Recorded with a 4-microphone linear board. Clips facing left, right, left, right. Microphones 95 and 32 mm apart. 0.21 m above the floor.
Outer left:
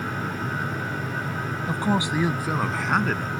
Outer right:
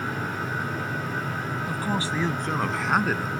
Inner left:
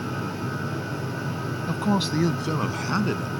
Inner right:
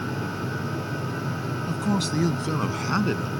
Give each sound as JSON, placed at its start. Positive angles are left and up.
{"t": 1.7, "sound": "a man speaking", "side_deg": 30}